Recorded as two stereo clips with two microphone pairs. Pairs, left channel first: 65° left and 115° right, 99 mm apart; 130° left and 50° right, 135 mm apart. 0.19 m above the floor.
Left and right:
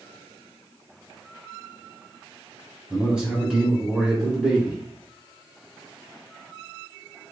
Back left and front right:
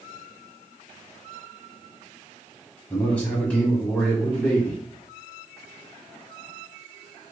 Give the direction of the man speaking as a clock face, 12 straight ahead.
6 o'clock.